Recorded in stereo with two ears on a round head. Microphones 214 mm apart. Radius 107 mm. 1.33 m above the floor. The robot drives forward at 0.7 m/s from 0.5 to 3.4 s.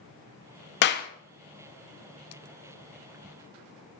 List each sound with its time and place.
0.8 s a clap: 45° left (ahead or behind), 0.6 m; by 1.1 s 35° left (ahead or behind), 0.7 m